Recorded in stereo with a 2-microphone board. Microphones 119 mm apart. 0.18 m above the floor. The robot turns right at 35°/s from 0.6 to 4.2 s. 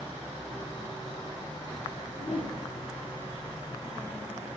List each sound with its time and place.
2.1 s a whoosh: 55° left (ahead or behind), 3 m; by 2.6 s 70° left (ahead or behind), 3 m